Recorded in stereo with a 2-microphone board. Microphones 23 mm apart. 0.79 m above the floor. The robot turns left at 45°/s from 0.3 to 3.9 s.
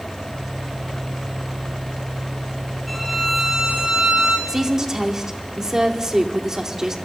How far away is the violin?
About 3 m.